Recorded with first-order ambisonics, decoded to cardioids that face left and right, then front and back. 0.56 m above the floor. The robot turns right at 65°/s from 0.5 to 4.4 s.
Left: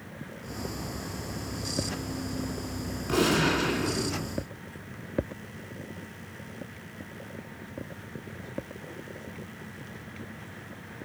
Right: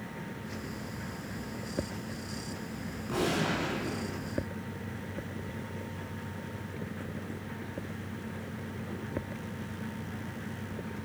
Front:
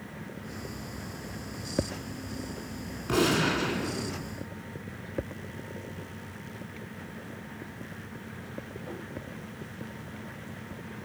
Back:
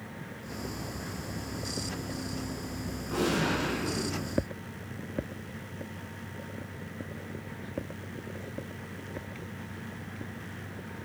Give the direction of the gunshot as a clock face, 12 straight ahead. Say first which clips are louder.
Left 6 dB, front 4 dB; 11 o'clock.